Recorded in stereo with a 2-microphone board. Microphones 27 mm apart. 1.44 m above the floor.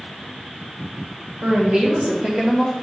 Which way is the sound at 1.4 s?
65° right (ahead or behind).